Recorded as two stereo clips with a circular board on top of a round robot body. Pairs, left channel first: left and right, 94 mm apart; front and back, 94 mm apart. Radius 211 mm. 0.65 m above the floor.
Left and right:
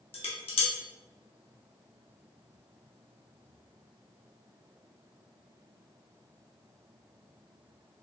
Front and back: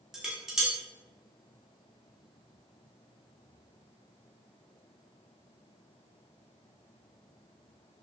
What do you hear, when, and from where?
0.1 s dishes clattering: 95° left, 1.2 m